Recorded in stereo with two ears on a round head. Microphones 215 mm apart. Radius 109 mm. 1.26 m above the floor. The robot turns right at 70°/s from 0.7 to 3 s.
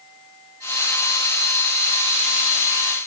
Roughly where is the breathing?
I don't hear breathing.